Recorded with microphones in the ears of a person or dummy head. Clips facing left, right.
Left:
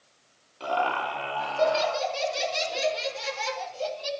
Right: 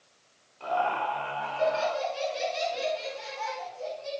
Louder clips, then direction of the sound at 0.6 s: Left 1 dB; 55° left (ahead or behind).